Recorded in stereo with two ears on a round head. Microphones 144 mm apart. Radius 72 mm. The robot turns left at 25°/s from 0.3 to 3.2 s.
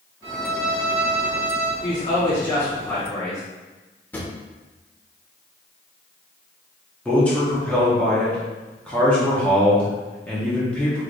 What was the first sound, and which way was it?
A violin, 100° right.